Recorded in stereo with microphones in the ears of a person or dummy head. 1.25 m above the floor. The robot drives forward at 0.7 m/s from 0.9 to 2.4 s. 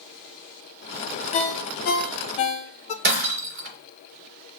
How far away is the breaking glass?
About 3 m.